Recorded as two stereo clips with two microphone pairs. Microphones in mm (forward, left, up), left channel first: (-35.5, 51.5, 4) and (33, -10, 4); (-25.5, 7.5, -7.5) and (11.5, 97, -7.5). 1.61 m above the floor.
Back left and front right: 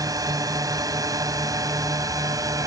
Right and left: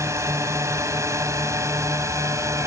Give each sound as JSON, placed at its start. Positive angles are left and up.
{"t": 0.0, "sound": "a drone", "azimuth_deg": 5}